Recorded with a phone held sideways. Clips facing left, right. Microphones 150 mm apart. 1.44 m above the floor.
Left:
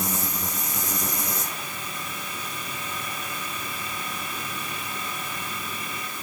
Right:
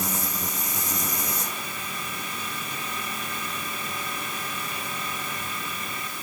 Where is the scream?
No scream in this recording.